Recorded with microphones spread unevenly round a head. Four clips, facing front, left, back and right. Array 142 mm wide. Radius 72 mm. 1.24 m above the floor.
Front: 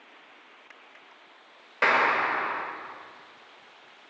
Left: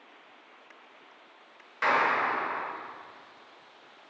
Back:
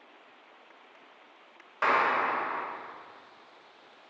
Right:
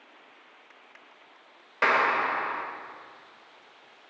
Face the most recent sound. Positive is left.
turn(degrees=-50)